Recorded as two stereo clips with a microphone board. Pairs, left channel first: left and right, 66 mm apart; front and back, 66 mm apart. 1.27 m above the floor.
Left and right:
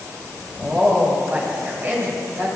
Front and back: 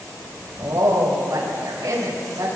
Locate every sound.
0.6 s a woman speaking: 145° right, 7.5 m